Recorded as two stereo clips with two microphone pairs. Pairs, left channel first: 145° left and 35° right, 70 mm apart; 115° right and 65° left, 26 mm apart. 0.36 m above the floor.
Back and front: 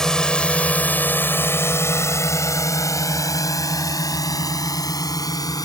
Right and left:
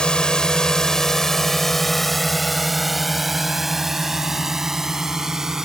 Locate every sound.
0.0 s a drone: 135° right; by 5.7 s 135° left